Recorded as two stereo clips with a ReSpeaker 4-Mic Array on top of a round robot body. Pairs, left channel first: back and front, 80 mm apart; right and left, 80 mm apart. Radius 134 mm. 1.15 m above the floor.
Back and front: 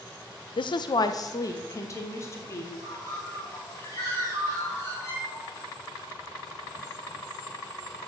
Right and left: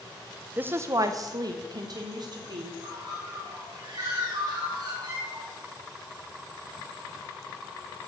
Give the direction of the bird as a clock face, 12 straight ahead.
8 o'clock.